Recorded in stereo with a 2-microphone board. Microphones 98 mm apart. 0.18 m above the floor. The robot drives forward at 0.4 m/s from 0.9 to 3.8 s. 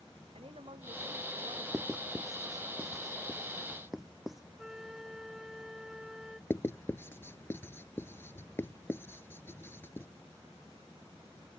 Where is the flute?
5° right (ahead or behind).